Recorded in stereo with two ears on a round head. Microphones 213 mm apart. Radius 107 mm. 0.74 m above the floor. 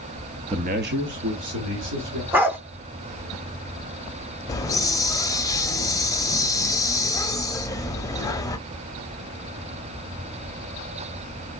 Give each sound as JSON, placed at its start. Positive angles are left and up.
{"t": 0.5, "sound": "a man speaking", "side_deg": -20, "distance_m": 0.5}
{"t": 2.3, "sound": "a dog barking", "side_deg": -10, "distance_m": 0.8}
{"t": 4.5, "sound": "a hiss", "side_deg": 15, "distance_m": 0.5}